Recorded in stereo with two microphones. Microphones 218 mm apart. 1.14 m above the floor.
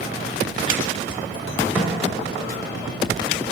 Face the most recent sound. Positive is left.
turn(degrees=0)  # may be behind; listen again after turning